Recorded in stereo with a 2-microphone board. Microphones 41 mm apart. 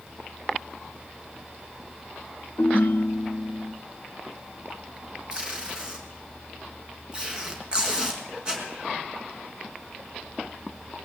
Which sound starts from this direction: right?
Tape being pulled, at 5.3 s.